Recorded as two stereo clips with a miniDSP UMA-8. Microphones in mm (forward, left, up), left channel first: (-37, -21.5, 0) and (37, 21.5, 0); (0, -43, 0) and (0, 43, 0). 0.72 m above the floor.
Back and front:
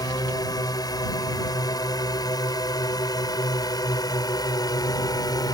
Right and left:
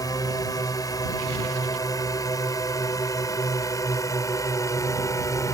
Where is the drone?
125° right; by 5.5 s 130° right.